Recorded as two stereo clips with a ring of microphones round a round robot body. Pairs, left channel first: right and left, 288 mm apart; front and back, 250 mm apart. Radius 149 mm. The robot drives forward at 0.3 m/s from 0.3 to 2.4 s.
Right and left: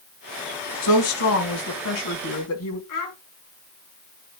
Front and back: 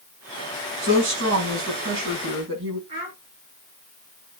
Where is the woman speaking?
125° right, 3.5 m; by 2.8 s 135° right, 3.5 m.